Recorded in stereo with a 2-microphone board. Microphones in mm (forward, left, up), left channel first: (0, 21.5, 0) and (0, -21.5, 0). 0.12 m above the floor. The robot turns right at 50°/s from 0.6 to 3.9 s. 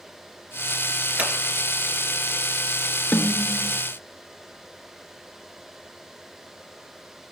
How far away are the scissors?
About 2 m.